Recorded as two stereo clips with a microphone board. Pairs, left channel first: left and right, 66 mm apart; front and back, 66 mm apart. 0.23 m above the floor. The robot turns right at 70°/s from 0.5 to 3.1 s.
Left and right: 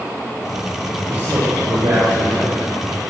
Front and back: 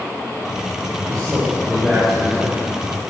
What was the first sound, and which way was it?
A man speaking, 160° right.